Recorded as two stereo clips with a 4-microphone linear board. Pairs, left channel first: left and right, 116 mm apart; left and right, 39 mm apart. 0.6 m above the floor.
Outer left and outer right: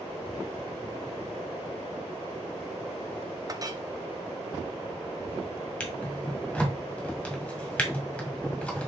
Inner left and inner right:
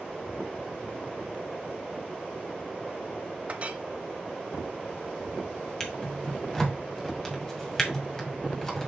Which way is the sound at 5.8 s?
10° left (ahead or behind).